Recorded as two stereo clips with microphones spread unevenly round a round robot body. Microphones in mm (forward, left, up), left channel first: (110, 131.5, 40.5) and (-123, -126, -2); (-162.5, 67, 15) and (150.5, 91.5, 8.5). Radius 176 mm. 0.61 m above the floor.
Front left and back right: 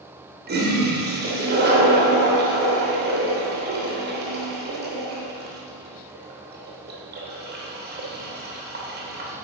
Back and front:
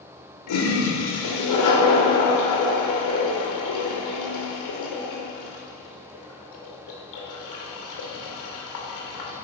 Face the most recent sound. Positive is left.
turn(degrees=170)